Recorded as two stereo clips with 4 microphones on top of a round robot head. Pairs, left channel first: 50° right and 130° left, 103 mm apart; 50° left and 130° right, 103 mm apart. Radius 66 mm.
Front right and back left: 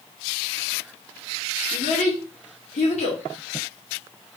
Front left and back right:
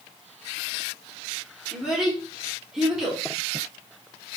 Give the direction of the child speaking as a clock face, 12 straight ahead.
1 o'clock.